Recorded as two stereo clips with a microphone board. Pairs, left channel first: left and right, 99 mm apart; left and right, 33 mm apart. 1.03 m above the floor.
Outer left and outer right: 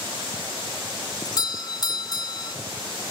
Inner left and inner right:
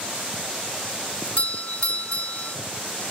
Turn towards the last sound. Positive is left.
turn(degrees=45)  # may be behind; listen again after turning